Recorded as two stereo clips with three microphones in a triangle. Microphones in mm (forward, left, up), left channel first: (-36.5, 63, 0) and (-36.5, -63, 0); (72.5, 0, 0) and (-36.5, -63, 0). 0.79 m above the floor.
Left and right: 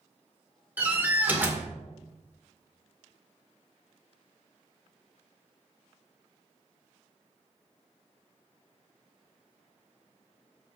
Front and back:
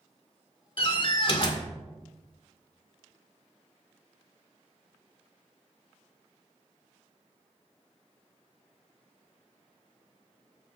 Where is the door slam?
15° right, 2.0 m.